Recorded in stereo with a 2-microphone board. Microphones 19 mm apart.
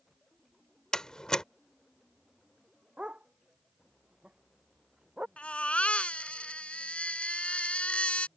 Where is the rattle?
I don't hear a rattle.